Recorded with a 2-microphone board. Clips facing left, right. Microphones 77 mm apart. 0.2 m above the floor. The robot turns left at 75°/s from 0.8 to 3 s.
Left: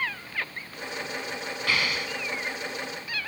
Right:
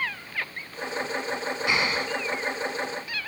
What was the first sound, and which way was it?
An explosion, 25° right.